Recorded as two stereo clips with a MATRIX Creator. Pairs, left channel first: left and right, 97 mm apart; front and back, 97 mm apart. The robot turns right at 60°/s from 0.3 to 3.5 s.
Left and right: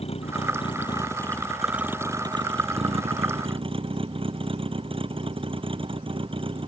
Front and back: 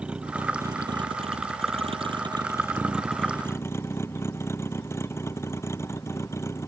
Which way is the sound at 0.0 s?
100° left.